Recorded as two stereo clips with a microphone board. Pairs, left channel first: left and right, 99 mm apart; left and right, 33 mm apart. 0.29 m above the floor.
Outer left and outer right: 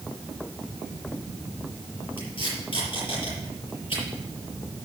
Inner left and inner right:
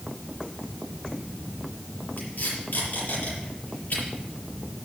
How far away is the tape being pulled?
About 6.5 m.